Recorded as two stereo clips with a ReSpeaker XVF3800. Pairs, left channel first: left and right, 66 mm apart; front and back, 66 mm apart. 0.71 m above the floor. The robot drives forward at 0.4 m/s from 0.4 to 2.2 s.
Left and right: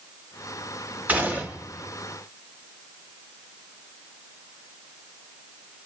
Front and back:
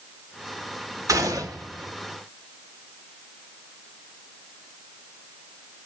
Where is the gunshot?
150° right, 2 m; by 1.9 s 155° right, 2.5 m.